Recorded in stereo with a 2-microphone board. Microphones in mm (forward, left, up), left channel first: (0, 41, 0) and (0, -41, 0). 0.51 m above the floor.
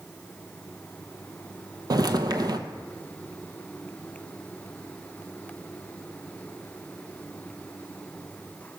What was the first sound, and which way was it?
Footsteps, 50° right (ahead or behind).